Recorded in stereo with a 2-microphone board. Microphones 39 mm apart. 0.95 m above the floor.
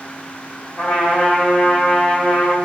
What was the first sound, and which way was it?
A trumpet, 35° left (ahead or behind).